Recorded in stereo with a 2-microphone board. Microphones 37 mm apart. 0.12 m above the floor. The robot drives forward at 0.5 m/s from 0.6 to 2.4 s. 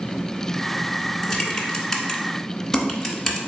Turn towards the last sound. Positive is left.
turn(degrees=10)  # may be behind; listen again after turning